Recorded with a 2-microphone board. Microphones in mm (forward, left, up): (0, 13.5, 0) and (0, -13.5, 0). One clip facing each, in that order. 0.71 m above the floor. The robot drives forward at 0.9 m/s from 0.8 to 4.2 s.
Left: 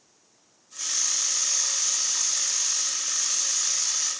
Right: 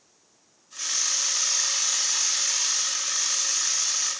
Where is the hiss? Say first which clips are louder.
Right 2 dB; 35° right (ahead or behind), 1.4 m; by 4.1 s 25° right (ahead or behind), 2.0 m.